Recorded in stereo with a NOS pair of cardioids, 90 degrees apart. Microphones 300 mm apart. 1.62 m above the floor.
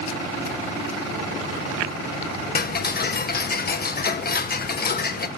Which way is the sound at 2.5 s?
30° left.